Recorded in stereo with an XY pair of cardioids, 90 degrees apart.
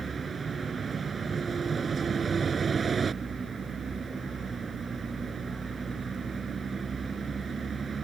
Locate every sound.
0.0 s a vehicle: 50° right